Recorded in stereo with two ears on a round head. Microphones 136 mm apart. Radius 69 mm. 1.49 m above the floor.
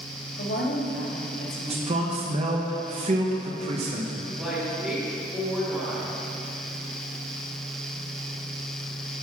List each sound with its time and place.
0.4 s a woman speaking: 75° left (ahead or behind), 2.5 m
1.7 s a man speaking: 45° right (ahead or behind), 1.2 m
4.4 s a woman speaking: 5° right (ahead or behind), 3 m